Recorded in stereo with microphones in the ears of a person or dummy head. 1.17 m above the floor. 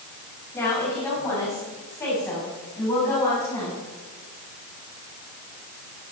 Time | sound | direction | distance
0.5 | a woman speaking | 20° left (ahead or behind) | 6.5 m